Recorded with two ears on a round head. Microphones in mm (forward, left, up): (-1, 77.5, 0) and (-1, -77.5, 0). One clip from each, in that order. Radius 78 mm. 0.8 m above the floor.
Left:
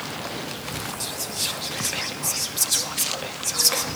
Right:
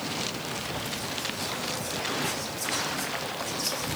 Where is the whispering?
60° left (ahead or behind), 1.0 m.